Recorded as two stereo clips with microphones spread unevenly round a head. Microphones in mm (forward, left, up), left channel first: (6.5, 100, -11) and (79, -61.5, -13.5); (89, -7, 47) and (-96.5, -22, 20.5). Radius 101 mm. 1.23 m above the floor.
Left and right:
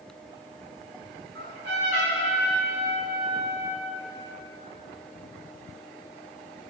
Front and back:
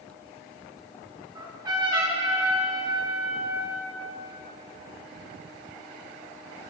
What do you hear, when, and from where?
1.4 s a trumpet: 105° right, 6 m